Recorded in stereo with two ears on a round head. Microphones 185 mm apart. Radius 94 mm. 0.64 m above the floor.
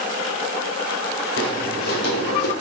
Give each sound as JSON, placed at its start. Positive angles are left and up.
{"t": 1.4, "sound": "footsteps", "side_deg": 45, "distance_m": 2.0}